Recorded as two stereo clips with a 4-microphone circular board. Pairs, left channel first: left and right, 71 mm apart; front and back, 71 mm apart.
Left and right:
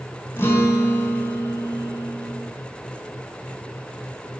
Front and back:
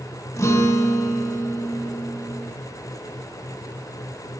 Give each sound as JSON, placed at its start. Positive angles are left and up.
{"t": 0.4, "sound": "a guitar", "azimuth_deg": 40, "distance_m": 2.5}